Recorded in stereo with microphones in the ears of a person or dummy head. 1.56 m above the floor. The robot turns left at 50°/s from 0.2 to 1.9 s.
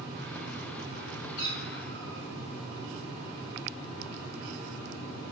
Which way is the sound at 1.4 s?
55° left (ahead or behind).